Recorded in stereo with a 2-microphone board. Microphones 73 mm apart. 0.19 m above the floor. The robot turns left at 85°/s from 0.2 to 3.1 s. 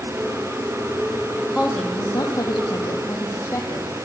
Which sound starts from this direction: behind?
A woman speaking, at 1.6 s.